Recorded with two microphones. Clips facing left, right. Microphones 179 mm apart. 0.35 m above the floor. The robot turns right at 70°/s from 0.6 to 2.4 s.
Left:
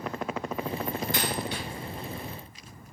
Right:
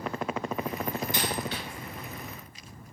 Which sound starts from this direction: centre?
A dropped coin, at 1.1 s.